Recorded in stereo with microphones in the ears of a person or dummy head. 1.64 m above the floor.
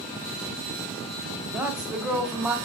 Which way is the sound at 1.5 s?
10° right (ahead or behind).